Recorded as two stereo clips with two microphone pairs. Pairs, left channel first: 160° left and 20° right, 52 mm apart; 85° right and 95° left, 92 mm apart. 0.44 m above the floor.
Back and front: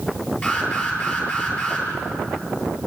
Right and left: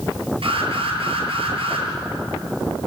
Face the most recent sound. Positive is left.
turn(degrees=95)